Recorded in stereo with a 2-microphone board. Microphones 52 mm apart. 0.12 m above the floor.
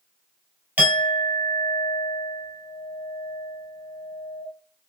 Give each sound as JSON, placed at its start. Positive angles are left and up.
{"t": 0.8, "sound": "a clink", "side_deg": -35, "distance_m": 1.8}